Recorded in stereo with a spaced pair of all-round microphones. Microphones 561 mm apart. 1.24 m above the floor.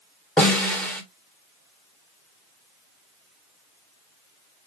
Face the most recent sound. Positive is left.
turn(degrees=0)  # may be behind; listen again after turning